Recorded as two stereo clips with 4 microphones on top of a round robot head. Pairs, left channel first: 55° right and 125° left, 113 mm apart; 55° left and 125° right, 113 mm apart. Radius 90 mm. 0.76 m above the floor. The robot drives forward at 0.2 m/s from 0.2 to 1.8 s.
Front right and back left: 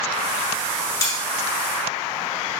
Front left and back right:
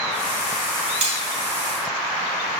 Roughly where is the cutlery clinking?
Behind right.